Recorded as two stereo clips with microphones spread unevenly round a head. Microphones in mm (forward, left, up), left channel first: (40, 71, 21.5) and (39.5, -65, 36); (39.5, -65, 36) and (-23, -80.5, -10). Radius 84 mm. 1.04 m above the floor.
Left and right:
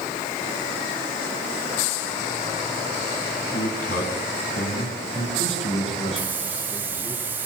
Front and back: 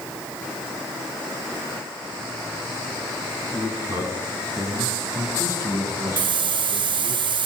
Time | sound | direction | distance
3.5 | a man speaking | 120° left | 9 m
6.2 | a hiss | 170° right | 0.7 m